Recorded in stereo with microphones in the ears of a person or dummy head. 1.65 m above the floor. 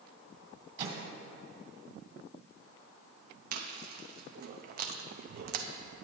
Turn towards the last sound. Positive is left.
turn(degrees=-45)  # may be behind; listen again after turning